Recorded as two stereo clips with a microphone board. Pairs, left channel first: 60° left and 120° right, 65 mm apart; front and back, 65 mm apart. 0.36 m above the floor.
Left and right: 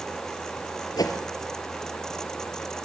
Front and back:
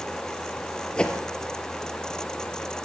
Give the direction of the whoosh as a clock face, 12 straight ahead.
10 o'clock.